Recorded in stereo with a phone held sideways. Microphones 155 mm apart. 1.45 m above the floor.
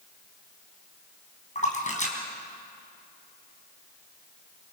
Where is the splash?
50° left (ahead or behind), 4 m.